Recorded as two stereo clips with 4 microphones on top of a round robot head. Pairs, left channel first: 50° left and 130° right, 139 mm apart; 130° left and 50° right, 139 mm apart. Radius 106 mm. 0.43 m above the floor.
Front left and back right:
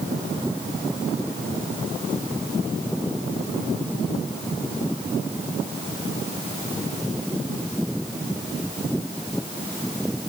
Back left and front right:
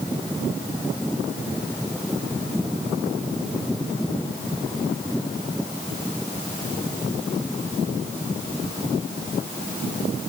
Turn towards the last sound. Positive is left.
No sound to turn to.